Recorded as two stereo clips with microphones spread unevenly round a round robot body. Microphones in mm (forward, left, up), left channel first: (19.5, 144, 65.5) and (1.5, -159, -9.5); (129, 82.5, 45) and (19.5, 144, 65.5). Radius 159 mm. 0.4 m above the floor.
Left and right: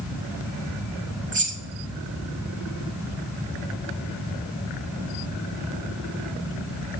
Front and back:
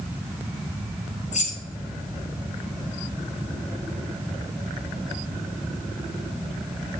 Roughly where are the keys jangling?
Ahead right.